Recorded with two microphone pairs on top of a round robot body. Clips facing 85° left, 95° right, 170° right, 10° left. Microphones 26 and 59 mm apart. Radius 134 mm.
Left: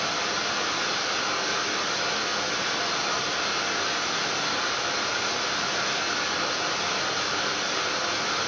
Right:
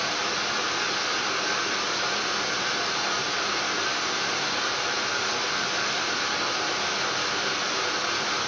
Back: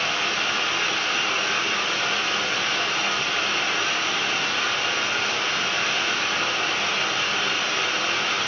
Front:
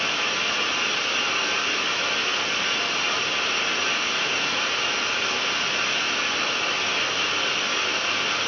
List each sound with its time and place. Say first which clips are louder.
0.0 s running water: even, back 1 dB; 175° left, 0.9 m